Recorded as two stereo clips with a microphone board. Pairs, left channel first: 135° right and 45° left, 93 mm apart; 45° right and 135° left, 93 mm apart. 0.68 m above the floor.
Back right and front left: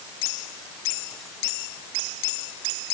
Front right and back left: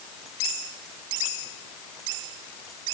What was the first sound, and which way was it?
Only background noise.